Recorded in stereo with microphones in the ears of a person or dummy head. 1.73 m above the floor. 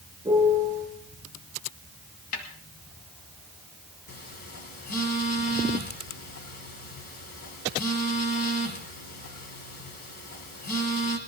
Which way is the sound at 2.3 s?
50° left (ahead or behind).